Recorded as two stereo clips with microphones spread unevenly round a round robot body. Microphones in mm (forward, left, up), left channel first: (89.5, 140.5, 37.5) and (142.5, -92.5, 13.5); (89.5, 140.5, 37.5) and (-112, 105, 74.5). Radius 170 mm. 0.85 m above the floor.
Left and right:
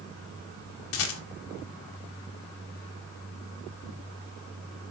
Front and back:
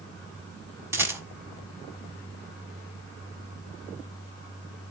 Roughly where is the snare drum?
I don't hear a snare drum.